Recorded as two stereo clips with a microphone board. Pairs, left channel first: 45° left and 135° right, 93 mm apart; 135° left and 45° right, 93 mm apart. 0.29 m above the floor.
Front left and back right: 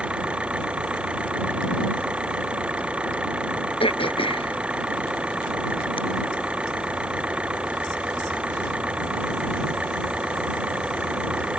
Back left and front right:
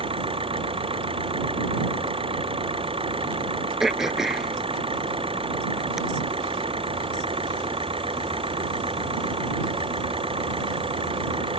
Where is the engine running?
60° right.